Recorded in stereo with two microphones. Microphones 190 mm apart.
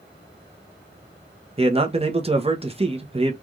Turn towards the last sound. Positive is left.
turn(degrees=-30)  # may be behind; listen again after turning